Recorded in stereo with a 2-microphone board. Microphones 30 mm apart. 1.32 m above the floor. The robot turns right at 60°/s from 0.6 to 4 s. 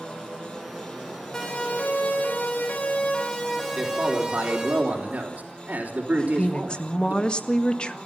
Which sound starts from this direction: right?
A man speaking, at 3.8 s.